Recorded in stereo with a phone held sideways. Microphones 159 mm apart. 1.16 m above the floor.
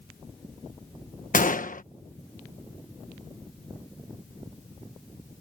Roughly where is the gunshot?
Left.